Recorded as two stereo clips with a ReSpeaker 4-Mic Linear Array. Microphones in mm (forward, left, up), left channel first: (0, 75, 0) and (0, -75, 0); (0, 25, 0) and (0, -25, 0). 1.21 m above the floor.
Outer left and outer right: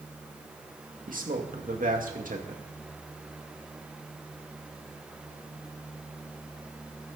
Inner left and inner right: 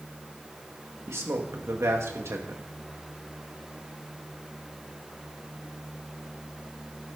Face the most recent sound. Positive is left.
turn(degrees=-75)  # may be behind; listen again after turning